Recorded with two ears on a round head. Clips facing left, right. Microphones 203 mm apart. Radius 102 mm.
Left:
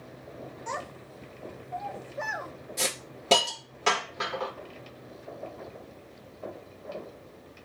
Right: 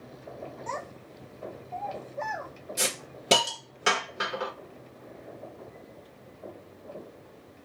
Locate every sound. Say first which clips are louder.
0.7 s a child speaking: even; 15° left (ahead or behind), 0.5 m
2.8 s a hiss: even; 15° right (ahead or behind), 1.5 m